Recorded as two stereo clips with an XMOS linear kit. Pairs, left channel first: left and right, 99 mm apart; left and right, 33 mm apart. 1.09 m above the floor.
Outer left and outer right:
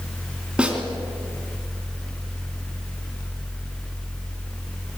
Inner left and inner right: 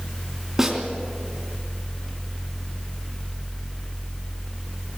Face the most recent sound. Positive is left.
turn(degrees=-10)  # may be behind; listen again after turning